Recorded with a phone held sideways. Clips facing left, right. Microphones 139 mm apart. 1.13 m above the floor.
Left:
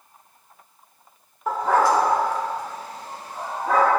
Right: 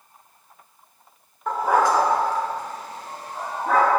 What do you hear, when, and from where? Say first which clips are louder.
1.5 s a dog barking: even; 10° left (ahead or behind), 0.9 m; by 3.9 s 55° right (ahead or behind), 3.5 m